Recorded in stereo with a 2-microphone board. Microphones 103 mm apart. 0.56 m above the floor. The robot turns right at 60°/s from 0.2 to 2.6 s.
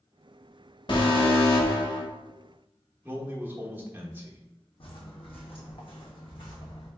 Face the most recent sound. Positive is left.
turn(degrees=55)  # may be behind; listen again after turning